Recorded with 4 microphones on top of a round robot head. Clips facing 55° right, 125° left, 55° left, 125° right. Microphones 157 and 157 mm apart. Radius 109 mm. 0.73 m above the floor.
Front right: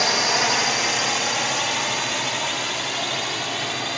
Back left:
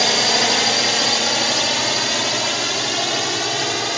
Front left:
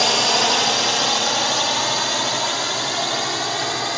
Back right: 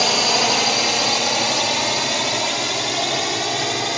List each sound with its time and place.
0.0 s a drone: 150° left; by 4.0 s 165° left